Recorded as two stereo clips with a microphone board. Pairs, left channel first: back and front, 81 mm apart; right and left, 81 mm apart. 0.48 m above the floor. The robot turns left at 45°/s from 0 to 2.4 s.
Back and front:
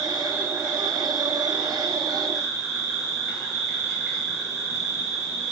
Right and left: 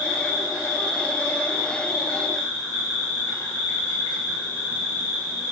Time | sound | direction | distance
0.0 | an insect | 20° left | 1.8 m